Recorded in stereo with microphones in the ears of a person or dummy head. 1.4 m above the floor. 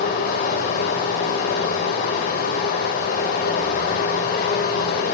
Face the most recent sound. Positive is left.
turn(degrees=45)  # may be behind; listen again after turning